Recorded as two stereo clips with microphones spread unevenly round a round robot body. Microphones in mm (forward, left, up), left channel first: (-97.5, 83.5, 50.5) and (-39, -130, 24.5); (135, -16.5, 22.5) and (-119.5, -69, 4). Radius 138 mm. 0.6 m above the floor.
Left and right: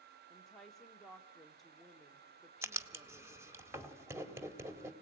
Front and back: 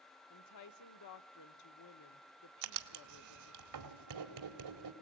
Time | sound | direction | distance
0.3 | a woman speaking | 10° left | 1.1 m
2.6 | writing | 155° right | 2 m